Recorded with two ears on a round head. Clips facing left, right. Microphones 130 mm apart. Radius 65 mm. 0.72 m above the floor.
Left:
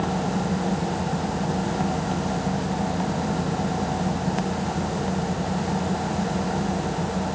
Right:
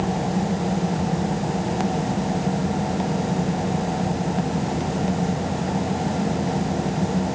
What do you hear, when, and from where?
Only background noise.